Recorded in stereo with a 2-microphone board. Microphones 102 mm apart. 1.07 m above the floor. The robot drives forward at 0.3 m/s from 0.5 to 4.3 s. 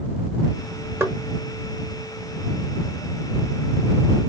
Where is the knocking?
25° right (ahead or behind), 0.8 m.